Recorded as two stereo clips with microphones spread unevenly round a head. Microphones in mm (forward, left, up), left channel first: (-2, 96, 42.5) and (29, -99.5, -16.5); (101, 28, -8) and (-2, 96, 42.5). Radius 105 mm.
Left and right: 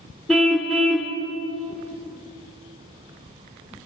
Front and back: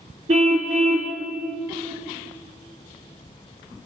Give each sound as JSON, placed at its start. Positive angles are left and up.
{"t": 0.3, "sound": "a car horn", "azimuth_deg": 180, "distance_m": 2.0}